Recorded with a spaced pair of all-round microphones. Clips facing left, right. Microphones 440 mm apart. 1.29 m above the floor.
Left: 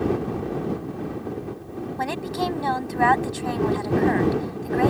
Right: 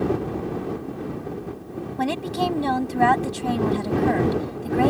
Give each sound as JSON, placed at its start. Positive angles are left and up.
{"t": 2.0, "sound": "a woman speaking", "side_deg": -50}